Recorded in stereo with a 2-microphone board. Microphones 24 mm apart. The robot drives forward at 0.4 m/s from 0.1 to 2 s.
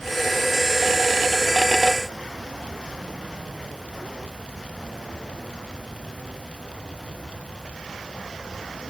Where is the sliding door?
I don't hear a sliding door.